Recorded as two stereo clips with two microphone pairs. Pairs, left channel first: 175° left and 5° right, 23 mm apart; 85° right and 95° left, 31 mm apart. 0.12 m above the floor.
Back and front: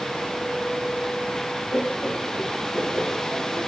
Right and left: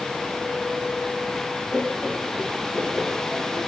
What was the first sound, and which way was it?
Laughter, straight behind.